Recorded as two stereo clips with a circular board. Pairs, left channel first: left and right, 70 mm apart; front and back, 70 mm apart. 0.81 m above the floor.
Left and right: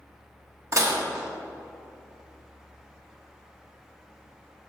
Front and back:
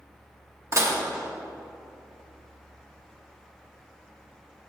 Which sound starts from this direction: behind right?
Dishes clattering, at 0.7 s.